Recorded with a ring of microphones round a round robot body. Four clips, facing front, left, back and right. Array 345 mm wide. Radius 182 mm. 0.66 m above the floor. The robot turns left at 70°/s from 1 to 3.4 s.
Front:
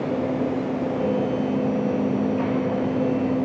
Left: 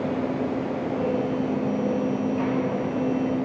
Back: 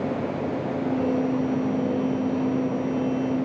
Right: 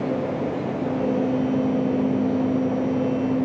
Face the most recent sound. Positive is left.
No sound to turn to.